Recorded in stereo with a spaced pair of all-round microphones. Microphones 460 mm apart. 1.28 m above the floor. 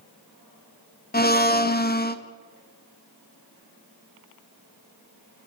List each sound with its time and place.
1.1 s a blender: 20° left (ahead or behind), 0.6 m